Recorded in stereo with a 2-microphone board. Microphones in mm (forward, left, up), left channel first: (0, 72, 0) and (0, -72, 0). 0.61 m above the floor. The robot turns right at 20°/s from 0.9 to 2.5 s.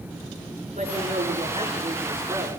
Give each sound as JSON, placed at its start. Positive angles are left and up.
{"t": 0.7, "sound": "a woman speaking", "azimuth_deg": -60, "distance_m": 8.5}